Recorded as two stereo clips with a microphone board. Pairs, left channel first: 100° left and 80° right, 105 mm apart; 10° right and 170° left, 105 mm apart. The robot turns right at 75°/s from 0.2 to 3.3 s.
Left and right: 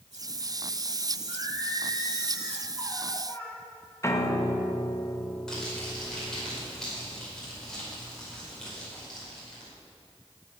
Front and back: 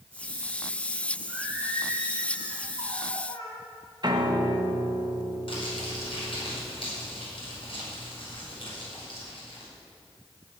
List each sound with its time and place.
1.3 s singing: 125° right, 3 m; by 3.6 s 30° left, 3 m
4.0 s a piano: 150° left, 0.9 m
5.5 s crumpling: 20° left, 5 m